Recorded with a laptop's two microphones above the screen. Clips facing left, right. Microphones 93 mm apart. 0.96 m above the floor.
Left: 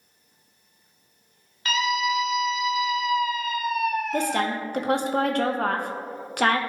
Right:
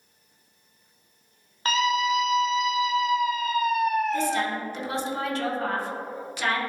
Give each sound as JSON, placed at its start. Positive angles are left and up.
{"t": 1.6, "sound": "a scream", "side_deg": -40, "distance_m": 0.7}
{"t": 4.1, "sound": "a woman speaking", "side_deg": 55, "distance_m": 0.7}